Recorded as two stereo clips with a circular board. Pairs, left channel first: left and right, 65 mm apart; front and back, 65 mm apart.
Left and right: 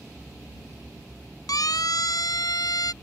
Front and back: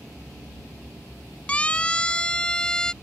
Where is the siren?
70° left; by 2.9 s 80° left.